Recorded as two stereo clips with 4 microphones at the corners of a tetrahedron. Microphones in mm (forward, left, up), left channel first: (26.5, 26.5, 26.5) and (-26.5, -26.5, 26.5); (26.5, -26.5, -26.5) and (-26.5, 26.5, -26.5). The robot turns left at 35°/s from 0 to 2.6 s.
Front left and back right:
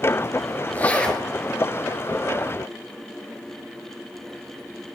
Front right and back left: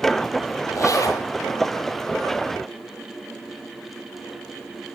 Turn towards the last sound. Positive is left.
turn(degrees=-85)